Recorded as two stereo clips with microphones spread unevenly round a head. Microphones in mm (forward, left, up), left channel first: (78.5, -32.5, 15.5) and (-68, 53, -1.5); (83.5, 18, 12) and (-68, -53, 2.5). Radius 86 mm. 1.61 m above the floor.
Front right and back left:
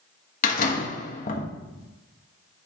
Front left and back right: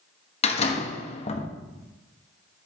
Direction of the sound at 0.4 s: 15° right.